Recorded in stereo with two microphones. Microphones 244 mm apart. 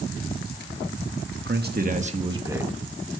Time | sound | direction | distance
1.3 | a man speaking | 50° right (ahead or behind) | 1.5 m